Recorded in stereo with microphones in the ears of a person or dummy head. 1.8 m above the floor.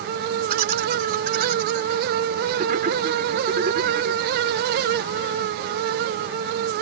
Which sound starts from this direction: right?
Laughter, at 0.5 s.